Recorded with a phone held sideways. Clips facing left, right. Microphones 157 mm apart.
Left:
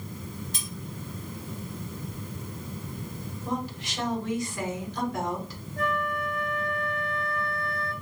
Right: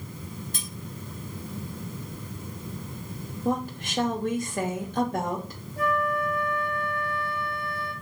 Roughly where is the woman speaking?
Right.